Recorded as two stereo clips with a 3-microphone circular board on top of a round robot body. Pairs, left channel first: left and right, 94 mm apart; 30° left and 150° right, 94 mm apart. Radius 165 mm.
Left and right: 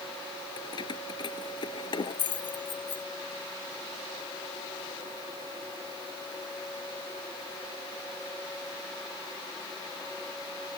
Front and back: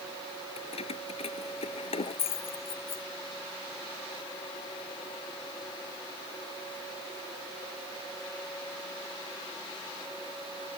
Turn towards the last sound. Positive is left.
turn(degrees=50)